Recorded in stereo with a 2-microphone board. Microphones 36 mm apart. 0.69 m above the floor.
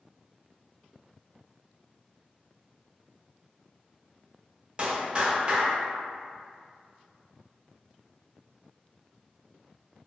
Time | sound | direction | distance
4.8 | a clap | 30° right (ahead or behind) | 0.5 m